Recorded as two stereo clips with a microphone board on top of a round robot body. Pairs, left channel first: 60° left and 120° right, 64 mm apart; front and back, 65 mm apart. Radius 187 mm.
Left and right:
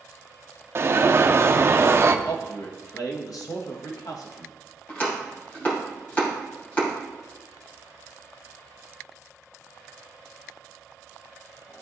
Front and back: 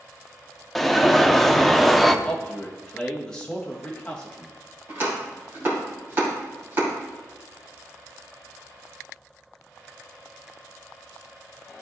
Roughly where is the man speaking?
Left.